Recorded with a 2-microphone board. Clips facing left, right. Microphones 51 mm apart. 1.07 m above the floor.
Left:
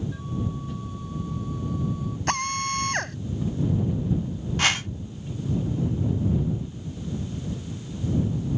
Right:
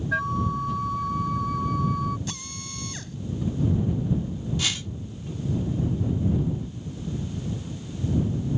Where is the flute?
70° right (ahead or behind).